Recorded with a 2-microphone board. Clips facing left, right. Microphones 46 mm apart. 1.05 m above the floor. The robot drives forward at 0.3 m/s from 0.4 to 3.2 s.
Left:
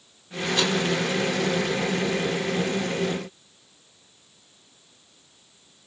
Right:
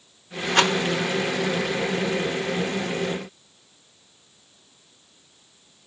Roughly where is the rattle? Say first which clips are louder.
Right 5 dB; right.